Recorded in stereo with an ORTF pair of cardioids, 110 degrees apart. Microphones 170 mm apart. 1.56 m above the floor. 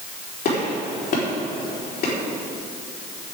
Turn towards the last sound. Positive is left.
turn(degrees=65)